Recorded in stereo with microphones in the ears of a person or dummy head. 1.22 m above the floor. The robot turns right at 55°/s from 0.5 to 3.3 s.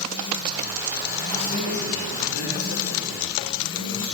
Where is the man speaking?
25° left, 4 m; by 4.1 s 135° left, 4 m.